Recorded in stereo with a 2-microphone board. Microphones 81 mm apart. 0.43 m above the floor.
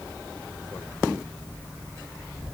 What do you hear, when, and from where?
Only background noise.